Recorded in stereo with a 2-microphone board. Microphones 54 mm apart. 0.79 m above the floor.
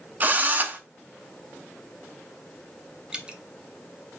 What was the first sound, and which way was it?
A drill, 35° right (ahead or behind).